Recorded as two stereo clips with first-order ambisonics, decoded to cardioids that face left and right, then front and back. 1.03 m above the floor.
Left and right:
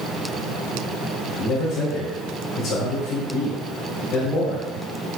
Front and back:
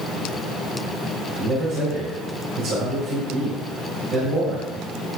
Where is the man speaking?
135° left, 3.5 m.